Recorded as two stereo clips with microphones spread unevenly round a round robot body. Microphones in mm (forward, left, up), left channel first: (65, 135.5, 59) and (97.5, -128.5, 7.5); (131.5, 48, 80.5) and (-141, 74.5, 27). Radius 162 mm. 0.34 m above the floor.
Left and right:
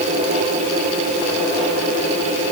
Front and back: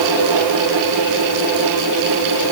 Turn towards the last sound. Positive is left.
No sound to turn to.